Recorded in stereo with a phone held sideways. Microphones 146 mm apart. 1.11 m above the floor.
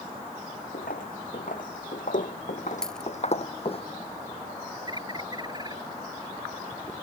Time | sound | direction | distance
0.7 | footsteps | 75° left (ahead or behind) | ?
2.8 | a dropped coin | 5° left (ahead or behind) | ?
4.9 | a bird | 30° right (ahead or behind) | ?